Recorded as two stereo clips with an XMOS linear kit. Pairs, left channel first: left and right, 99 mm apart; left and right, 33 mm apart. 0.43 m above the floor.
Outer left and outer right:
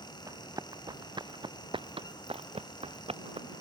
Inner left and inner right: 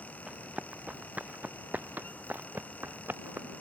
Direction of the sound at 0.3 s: 35° right (ahead or behind).